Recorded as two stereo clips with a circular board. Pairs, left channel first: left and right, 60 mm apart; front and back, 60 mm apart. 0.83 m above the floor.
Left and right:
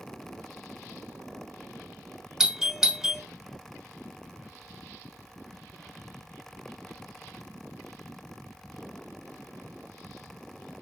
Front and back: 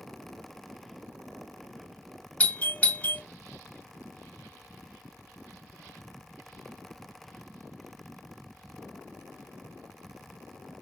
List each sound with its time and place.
2.4 s a doorbell: 25° right, 0.8 m